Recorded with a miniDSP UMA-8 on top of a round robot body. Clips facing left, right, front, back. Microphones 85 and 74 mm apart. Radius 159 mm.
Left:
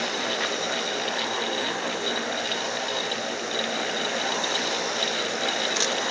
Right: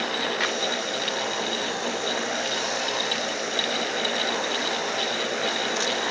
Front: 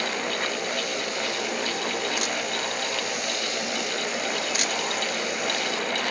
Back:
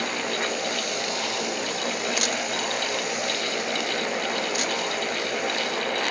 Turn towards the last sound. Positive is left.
No sound to turn to.